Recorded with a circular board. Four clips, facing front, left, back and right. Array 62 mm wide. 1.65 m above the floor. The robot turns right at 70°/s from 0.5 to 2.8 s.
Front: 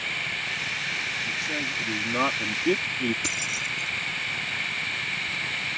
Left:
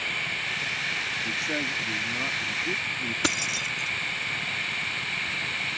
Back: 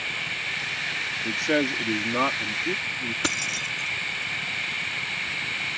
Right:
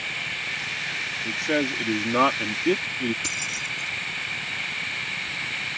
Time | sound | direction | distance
1.2 | a man speaking | 165° right | ?
3.2 | keys jangling | 125° left | ?